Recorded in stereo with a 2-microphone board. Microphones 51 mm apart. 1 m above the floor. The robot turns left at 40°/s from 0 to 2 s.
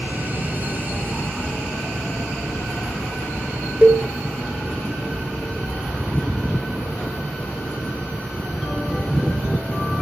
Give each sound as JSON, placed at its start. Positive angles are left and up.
{"t": 3.8, "sound": "a cowbell", "side_deg": -30, "distance_m": 1.5}